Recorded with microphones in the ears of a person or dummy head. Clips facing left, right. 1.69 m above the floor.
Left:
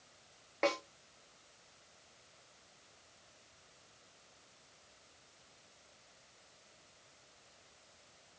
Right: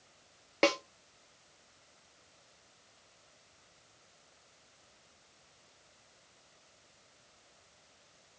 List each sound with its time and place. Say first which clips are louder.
0.6 s a snare drum: right 5 dB; 40° right (ahead or behind), 0.9 m